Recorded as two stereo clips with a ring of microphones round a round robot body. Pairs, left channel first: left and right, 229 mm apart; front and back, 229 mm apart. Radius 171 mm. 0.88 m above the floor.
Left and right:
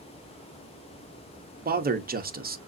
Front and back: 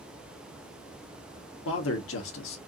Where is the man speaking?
40° right, 1.1 m.